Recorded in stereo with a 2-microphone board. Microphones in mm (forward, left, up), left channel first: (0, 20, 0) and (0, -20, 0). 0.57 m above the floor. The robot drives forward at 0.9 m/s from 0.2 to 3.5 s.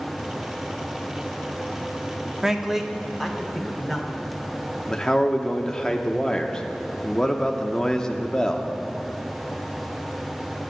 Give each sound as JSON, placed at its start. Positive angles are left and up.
{"t": 2.4, "sound": "a man speaking", "side_deg": -10, "distance_m": 0.7}
{"t": 4.9, "sound": "a man speaking", "side_deg": 15, "distance_m": 0.8}